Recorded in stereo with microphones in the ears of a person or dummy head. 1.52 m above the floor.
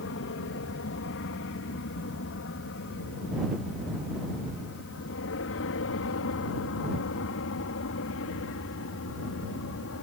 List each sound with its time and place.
0.0 s an aircraft: 60° left (ahead or behind); by 10.0 s 65° left (ahead or behind)